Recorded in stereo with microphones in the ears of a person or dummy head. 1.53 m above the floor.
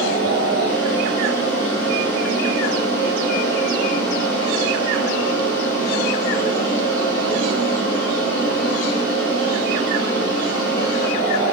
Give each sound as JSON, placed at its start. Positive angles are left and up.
{"t": 0.0, "sound": "a fan", "side_deg": 15, "distance_m": 1.5}